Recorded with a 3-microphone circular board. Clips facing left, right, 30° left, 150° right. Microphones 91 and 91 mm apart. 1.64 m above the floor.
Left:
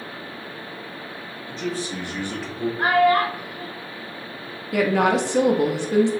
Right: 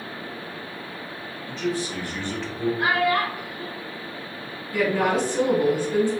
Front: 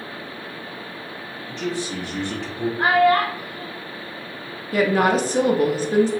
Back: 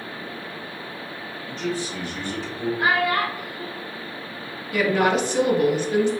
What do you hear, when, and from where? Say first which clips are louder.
1.5 s a man speaking: right 1 dB, front 1 dB; 40° left, 1.7 m; by 2.7 s 10° right, 1.0 m
2.8 s a child speaking: left 6 dB, front 6 dB; 60° left, 0.7 m
4.7 s a woman speaking: left 3 dB, front 2 dB; 80° left, 0.6 m